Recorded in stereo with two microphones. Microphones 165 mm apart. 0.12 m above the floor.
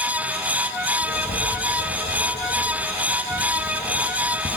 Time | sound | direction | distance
1.0 | writing | 60° left (ahead or behind) | 2.5 m